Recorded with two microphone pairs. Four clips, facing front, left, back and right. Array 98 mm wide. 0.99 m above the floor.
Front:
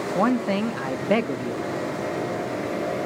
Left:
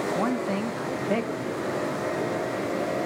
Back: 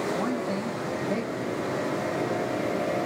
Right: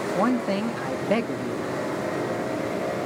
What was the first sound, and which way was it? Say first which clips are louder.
A man speaking: right 3 dB, front 6 dB; 20° right.